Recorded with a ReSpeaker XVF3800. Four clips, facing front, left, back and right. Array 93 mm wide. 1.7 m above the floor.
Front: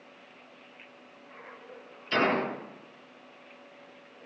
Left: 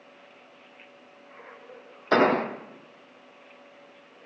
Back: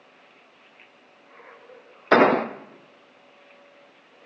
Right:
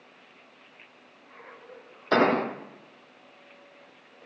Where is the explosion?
175° left, 0.8 m.